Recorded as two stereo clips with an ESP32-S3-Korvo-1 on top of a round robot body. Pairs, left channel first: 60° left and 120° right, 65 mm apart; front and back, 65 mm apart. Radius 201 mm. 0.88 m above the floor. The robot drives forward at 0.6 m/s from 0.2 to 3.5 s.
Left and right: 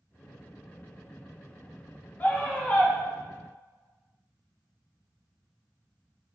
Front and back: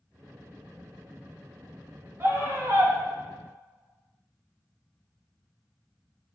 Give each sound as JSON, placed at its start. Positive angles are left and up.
{"t": 2.2, "sound": "a scream", "azimuth_deg": 120, "distance_m": 2.5}